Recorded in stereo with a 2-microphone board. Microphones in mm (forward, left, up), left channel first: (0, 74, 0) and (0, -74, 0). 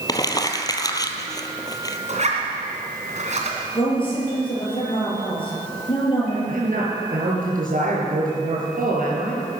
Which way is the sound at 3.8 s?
35° left (ahead or behind).